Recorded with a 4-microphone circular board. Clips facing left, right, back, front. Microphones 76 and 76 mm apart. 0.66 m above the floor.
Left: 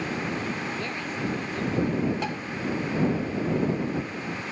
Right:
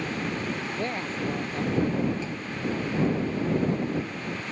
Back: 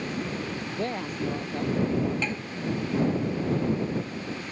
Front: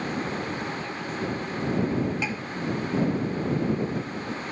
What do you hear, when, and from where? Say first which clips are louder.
0.8 s a woman speaking: right 1 dB, back 1 dB; 150° right
2.2 s tapping: left 3 dB, front 1 dB; 80° left